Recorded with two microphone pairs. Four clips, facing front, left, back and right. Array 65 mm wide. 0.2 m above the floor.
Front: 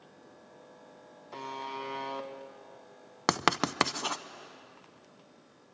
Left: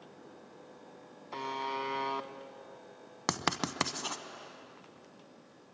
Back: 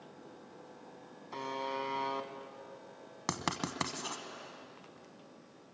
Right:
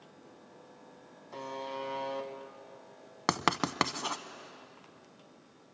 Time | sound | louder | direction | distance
1.3 | a buzzer | left 3 dB, back 1 dB | 100° left | 1.1 m
3.3 | writing | right 4 dB, front 9 dB | 30° right | 0.6 m